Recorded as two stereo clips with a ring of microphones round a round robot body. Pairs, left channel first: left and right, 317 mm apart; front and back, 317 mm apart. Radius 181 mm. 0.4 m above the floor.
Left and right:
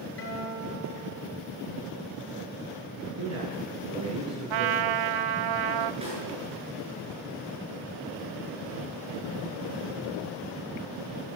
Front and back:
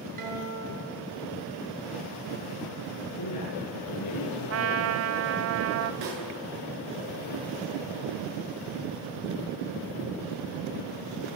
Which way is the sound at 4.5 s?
125° right.